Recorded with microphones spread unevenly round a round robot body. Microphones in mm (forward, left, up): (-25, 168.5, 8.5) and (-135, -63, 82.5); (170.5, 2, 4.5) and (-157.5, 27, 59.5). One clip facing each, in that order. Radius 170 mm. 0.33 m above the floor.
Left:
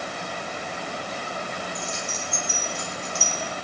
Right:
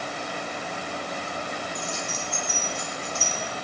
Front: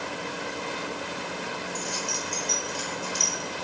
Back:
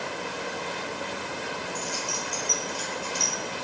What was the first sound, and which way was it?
Keys jangling, 5° right.